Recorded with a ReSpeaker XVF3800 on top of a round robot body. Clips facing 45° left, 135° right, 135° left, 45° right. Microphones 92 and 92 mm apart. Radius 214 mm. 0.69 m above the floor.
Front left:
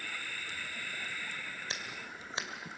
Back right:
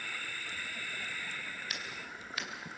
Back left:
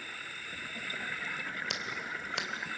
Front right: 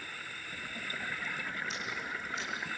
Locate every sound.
1.7 s scissors: 110° left, 2.5 m